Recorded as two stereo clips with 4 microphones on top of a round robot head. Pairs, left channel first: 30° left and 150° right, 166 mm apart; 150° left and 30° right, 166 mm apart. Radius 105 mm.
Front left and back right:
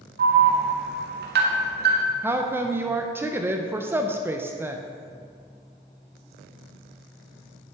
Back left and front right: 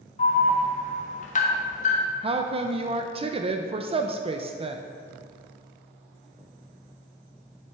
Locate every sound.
0.2 s an alarm: 170° right, 1.5 m
2.2 s a woman speaking: 75° right, 0.6 m